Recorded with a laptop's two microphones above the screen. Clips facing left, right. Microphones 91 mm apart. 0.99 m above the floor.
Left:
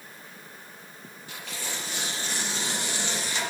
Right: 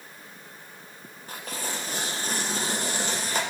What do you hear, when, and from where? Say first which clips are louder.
1.3 s tearing paper: right 3 dB; 45° right (ahead or behind), 1.0 m